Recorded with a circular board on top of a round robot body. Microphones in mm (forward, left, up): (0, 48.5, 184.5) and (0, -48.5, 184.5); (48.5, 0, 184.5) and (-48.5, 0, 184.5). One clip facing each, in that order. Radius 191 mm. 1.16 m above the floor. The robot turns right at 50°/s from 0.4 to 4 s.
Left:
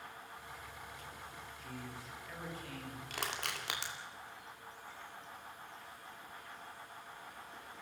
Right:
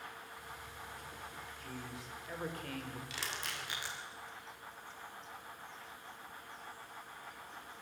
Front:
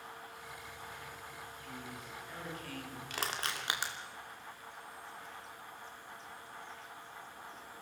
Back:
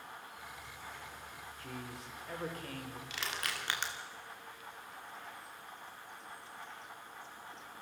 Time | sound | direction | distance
1.6 | a man speaking | straight behind | 4 m
3.1 | crushing | 45° left | 3 m